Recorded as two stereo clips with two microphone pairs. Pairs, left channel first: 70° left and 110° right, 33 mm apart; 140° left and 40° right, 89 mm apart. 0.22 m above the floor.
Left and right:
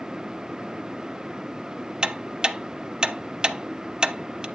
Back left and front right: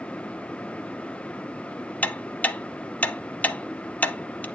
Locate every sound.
2.0 s ticking: 155° right, 0.6 m